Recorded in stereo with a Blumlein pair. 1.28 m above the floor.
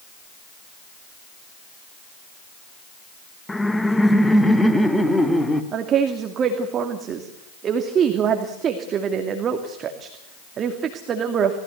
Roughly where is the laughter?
Ahead.